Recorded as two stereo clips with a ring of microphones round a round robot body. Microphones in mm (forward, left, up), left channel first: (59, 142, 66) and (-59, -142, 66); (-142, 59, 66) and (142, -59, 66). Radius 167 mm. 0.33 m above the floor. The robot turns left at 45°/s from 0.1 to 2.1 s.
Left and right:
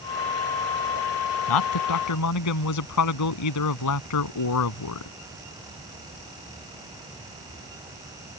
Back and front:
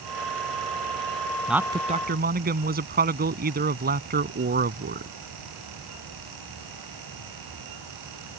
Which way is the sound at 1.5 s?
65° left.